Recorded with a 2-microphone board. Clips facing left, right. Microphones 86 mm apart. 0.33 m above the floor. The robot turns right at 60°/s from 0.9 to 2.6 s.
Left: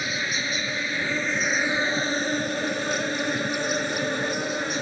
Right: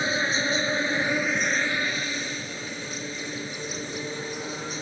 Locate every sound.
0.0 s an insect: 30° right; by 4.8 s 75° left